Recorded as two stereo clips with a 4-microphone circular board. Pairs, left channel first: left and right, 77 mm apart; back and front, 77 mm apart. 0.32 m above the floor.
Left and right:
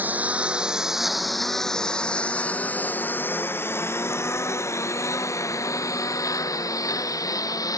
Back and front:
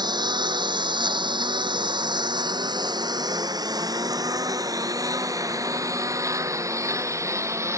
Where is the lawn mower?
20° right; by 7.8 s 50° left.